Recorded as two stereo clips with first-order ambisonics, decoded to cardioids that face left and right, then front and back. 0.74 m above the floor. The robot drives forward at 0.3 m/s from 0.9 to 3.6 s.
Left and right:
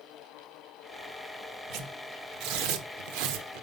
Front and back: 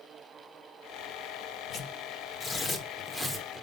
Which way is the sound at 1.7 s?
60° right.